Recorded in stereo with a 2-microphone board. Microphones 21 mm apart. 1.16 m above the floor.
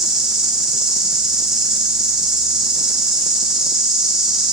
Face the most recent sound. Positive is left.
turn(degrees=-25)  # may be behind; listen again after turning